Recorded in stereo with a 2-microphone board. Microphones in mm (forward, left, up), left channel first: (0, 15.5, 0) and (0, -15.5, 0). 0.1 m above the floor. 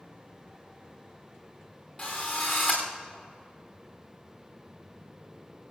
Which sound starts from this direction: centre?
A drill, at 2.0 s.